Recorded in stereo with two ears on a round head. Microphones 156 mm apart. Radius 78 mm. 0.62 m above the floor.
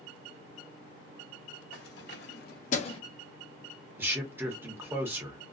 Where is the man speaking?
15° right (ahead or behind), 0.9 m.